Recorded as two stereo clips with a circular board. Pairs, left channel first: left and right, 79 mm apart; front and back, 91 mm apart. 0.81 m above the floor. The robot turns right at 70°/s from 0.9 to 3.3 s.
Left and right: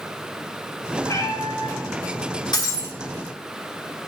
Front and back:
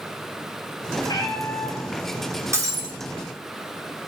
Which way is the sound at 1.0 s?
35° left.